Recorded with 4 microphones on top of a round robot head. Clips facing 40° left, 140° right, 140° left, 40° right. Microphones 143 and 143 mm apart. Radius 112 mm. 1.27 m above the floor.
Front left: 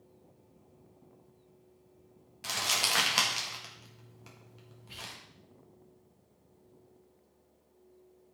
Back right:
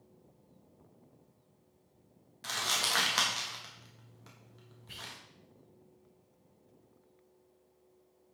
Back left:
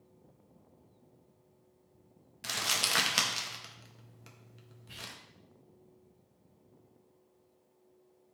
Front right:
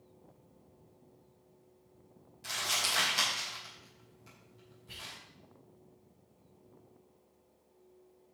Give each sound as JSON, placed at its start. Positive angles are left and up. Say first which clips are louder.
{"t": 2.4, "sound": "crumpling", "louder": "front left 2 dB, back left 1 dB", "azimuth_deg": 120, "distance_m": 1.7}
{"t": 4.9, "sound": "whispering", "louder": "front left 2 dB, back left 2 dB", "azimuth_deg": -130, "distance_m": 6.5}